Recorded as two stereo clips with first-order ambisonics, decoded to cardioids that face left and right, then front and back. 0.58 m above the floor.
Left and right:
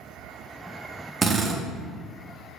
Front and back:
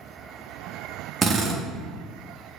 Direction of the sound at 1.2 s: 135° right.